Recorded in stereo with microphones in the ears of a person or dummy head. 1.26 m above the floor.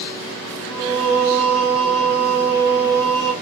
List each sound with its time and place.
0.7 s singing: 35° left (ahead or behind), 2.5 m